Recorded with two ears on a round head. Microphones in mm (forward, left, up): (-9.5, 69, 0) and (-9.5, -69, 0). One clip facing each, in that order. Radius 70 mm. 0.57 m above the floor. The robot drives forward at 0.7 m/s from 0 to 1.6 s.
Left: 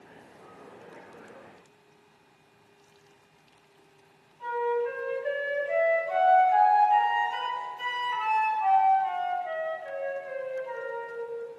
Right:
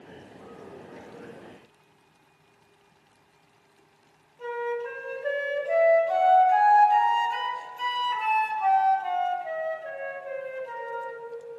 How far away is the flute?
About 1.7 m.